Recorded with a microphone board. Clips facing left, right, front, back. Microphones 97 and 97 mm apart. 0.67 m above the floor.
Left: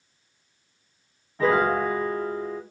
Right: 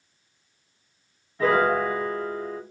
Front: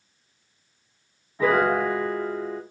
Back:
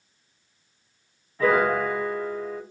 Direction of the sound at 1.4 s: 60° left.